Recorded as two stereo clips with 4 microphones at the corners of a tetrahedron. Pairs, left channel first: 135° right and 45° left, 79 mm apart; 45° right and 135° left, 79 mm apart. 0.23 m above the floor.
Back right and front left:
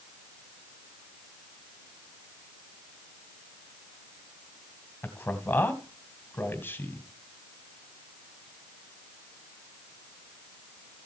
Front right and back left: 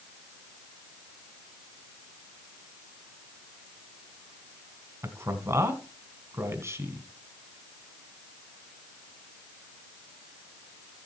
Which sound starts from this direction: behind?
A man speaking, at 5.0 s.